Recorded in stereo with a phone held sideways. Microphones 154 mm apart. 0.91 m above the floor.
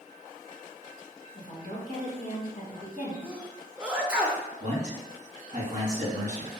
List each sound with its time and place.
1.4 s a woman speaking: 55° left (ahead or behind), 1.1 m
3.2 s a sneeze: 5° right (ahead or behind), 0.6 m
4.6 s a man speaking: 45° right (ahead or behind), 1.3 m